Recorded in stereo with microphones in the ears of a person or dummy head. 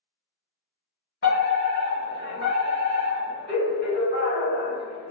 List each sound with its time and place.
1.2 s a fire alarm: 50° left (ahead or behind), 1.7 m